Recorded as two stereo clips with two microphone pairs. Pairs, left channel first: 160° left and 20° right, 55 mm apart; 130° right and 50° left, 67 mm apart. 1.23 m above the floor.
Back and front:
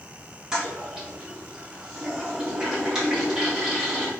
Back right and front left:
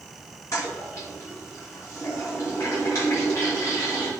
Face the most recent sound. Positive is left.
turn(degrees=-95)